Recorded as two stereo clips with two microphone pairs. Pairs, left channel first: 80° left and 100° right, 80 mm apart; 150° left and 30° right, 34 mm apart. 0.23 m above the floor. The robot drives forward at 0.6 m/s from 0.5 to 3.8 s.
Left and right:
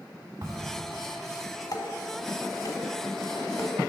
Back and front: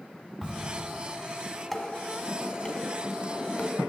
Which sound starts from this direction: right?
A crack, at 0.4 s.